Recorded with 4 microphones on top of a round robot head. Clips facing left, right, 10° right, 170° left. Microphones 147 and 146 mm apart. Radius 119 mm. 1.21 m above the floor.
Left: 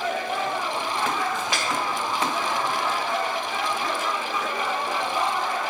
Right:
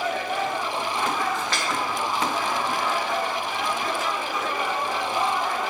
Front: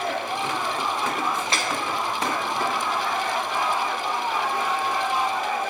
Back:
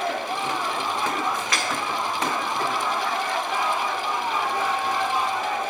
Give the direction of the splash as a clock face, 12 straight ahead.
11 o'clock.